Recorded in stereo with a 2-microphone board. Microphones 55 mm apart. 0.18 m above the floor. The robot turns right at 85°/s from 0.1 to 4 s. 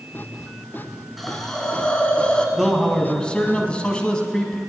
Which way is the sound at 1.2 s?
Centre (ahead or behind).